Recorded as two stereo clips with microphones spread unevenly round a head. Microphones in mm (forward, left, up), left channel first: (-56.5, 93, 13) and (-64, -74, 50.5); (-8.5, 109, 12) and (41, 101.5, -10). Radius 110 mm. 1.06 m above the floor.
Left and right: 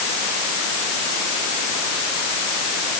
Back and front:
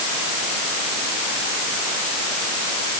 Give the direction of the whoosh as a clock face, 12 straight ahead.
I don't hear a whoosh.